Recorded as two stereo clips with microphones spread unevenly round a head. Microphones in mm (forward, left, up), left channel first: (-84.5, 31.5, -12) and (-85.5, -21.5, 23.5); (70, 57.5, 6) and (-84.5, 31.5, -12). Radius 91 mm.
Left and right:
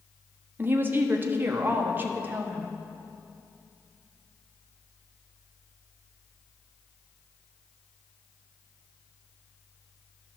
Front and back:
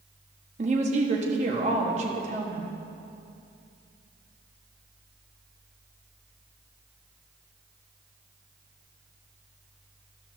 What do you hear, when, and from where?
0.6 s a woman speaking: 115° right, 1.1 m